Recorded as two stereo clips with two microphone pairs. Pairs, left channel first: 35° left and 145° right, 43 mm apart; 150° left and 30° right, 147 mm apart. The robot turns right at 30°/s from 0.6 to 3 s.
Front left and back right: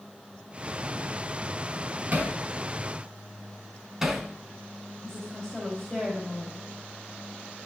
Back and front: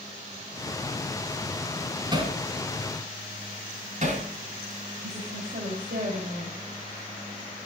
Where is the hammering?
90° right, 3 m; by 4.3 s 65° right, 3 m.